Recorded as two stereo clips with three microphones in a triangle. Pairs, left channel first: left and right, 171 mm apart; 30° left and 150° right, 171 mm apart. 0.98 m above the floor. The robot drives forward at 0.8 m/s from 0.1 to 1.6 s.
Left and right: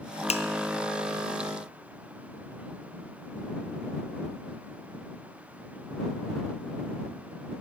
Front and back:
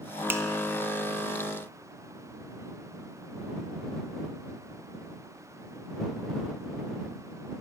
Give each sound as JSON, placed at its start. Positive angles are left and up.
{"t": 0.3, "sound": "a finger snap", "azimuth_deg": 135, "distance_m": 0.5}